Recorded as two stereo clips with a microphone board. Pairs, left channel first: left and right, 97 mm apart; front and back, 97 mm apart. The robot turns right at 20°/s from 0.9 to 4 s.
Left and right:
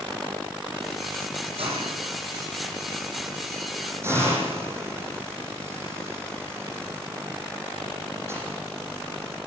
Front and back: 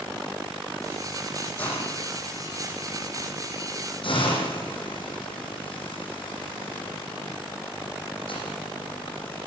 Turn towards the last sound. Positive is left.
turn(degrees=-25)